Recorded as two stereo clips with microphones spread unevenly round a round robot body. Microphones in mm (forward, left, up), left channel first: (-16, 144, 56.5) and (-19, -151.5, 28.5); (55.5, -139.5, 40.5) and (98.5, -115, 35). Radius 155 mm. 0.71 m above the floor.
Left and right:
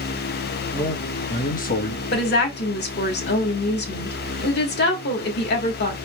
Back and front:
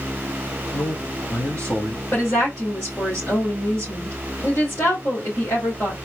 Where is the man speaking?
170° left, 1.5 m; by 2.0 s 135° left, 1.2 m.